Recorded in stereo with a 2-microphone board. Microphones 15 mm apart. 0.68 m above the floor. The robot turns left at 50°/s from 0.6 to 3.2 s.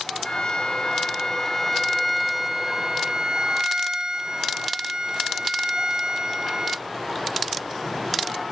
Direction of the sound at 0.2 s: 80° left.